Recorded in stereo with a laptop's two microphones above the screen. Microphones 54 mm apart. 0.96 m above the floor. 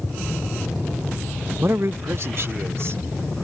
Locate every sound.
1.6 s a man speaking: 45° right (ahead or behind); by 3.5 s 55° right (ahead or behind)